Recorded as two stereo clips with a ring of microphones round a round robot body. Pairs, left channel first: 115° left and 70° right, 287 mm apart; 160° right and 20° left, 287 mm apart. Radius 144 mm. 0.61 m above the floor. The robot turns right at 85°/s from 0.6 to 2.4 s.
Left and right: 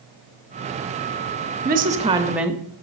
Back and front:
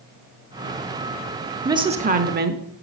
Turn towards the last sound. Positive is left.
turn(degrees=15)